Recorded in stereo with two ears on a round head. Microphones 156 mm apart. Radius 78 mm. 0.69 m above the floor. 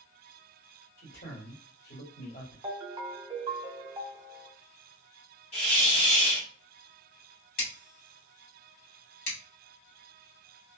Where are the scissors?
60° left (ahead or behind), 1.9 m.